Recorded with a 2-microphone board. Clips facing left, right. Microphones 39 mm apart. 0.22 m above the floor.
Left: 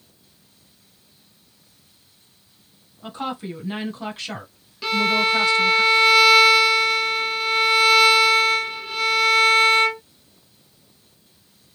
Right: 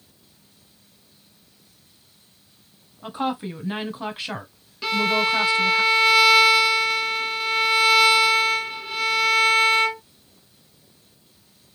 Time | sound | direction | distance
3.0 | a woman speaking | 20° right (ahead or behind) | 1.2 m
4.8 | a violin | 5° right (ahead or behind) | 0.7 m